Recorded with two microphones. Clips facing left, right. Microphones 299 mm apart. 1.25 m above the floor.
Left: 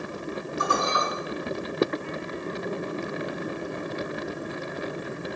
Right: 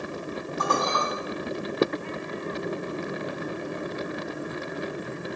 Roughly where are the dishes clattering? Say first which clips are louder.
Right 1 dB; right.